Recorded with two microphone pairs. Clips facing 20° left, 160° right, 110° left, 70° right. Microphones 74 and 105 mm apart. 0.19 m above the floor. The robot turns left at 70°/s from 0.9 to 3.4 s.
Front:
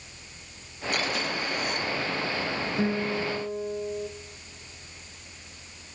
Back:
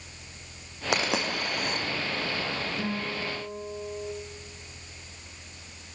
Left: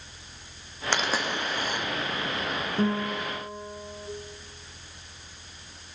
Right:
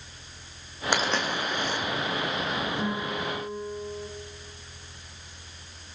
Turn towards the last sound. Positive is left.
turn(degrees=30)